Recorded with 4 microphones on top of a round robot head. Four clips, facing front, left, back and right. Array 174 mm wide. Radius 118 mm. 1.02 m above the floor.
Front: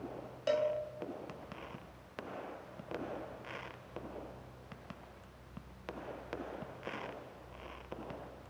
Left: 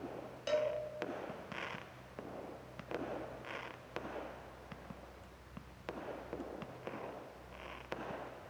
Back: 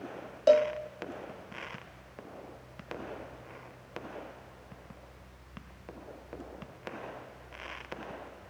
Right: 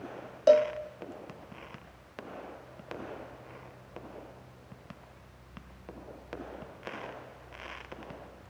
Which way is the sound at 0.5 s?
130° right.